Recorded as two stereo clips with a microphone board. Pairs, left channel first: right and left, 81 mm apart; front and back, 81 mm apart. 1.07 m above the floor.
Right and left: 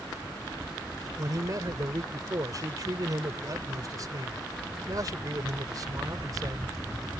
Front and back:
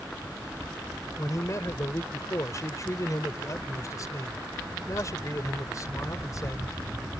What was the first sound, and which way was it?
A man speaking, 45° left.